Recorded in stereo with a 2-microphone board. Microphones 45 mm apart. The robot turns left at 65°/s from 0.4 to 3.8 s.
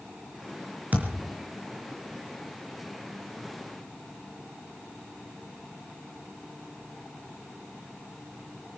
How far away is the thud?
About 4.5 m.